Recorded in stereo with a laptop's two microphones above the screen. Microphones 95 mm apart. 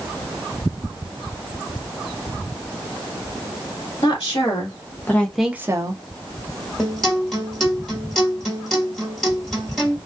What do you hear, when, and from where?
4.0 s a woman speaking: 55° left (ahead or behind), 1.6 m; by 6.0 s 50° right (ahead or behind), 0.9 m
6.8 s a guitar: 5° left (ahead or behind), 1.7 m